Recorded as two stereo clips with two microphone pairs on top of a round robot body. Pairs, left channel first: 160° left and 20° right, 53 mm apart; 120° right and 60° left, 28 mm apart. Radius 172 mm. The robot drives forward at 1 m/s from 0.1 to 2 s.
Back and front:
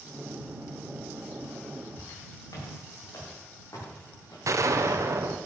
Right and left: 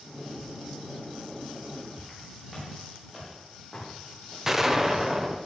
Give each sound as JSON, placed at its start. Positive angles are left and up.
{"t": 2.0, "sound": "footsteps", "azimuth_deg": 145, "distance_m": 6.5}
{"t": 4.5, "sound": "a gunshot", "azimuth_deg": -10, "distance_m": 1.3}